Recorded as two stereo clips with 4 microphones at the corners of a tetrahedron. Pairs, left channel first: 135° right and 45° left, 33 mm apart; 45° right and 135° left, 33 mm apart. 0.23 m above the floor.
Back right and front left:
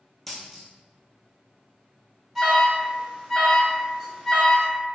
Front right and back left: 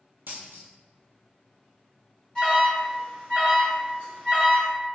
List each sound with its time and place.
0.3 s a dropped coin: 140° left, 0.8 m
2.4 s an alarm: 40° right, 1.5 m